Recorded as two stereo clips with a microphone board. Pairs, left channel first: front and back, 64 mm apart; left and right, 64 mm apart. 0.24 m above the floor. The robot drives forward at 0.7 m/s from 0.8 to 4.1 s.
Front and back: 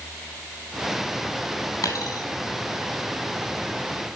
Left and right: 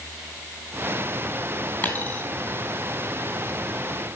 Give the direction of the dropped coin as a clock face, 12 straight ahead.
11 o'clock.